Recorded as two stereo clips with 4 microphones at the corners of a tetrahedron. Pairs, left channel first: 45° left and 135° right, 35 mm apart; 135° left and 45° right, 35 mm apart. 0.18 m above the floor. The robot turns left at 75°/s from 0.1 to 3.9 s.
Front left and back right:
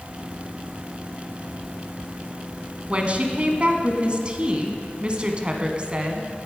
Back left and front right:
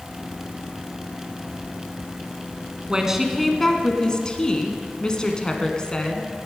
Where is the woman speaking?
95° right, 1.4 m; by 6.3 s 170° right, 1.4 m.